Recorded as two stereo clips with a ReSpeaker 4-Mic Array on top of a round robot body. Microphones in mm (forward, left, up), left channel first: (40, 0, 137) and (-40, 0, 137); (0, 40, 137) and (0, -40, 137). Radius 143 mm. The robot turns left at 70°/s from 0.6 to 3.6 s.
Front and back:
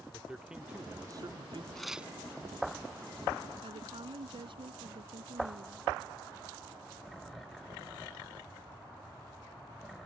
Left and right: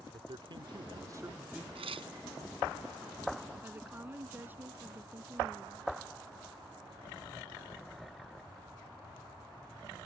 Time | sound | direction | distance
0.1 | a man speaking | 100° right | ?
1.8 | tearing paper | 85° right | ?
3.6 | a woman speaking | 160° right | ?